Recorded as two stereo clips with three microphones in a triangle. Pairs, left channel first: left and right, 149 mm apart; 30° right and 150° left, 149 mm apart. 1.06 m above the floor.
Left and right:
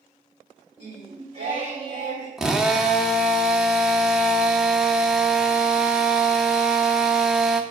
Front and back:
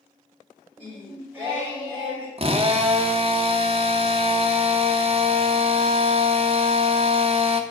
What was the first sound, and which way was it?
Singing, 130° right.